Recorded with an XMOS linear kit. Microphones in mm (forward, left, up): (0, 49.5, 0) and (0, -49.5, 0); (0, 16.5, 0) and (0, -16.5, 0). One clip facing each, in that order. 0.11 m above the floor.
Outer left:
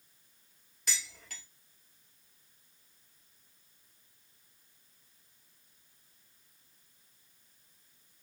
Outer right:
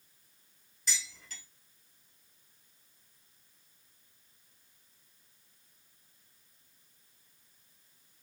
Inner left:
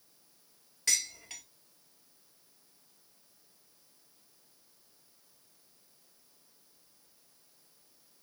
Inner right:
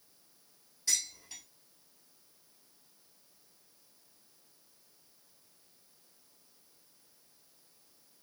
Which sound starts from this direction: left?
Dishes clattering, at 0.9 s.